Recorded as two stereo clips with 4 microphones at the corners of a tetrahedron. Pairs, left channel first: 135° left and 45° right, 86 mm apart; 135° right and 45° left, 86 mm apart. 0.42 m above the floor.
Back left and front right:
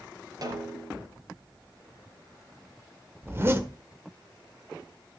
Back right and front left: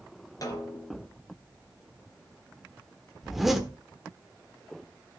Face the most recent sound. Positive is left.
turn(degrees=-40)